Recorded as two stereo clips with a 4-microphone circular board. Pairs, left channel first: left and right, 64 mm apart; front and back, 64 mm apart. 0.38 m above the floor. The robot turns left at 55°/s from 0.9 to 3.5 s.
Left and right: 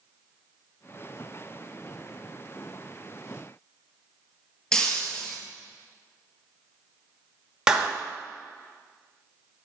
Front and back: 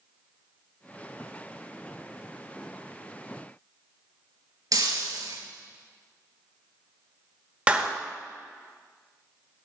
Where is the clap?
145° right, 1.1 m.